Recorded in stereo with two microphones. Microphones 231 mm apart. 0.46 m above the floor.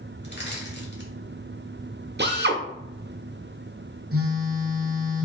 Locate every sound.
0.2 s crushing: 50° left (ahead or behind), 1.2 m
2.2 s a drill: 50° right (ahead or behind), 0.7 m
4.1 s a phone buzzing: 70° right (ahead or behind), 0.8 m